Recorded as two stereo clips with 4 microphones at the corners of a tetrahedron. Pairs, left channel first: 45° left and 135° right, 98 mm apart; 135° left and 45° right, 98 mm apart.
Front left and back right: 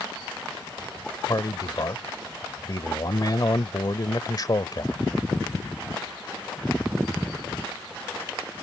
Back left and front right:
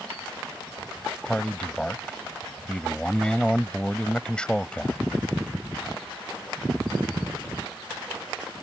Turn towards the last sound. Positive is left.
turn(degrees=60)